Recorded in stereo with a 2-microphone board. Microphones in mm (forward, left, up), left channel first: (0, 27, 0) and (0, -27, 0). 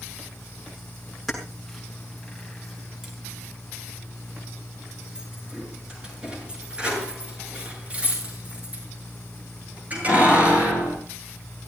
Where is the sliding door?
I don't hear a sliding door.